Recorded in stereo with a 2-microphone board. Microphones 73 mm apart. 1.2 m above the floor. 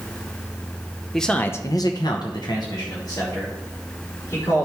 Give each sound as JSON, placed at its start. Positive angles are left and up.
{"t": 1.1, "sound": "a man speaking", "side_deg": 5, "distance_m": 1.0}